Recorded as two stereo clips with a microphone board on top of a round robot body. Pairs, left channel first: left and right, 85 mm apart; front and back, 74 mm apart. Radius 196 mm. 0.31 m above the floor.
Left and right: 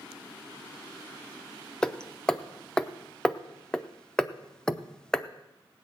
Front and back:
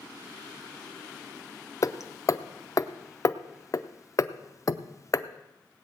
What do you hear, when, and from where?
1.8 s hammering: 10° left, 0.9 m